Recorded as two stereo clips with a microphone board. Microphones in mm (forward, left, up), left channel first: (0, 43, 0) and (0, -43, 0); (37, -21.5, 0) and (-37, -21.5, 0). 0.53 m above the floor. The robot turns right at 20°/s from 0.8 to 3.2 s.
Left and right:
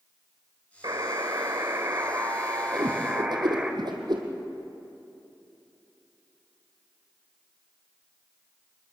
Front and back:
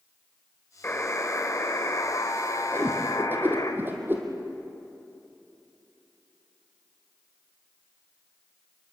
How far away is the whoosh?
About 3.5 m.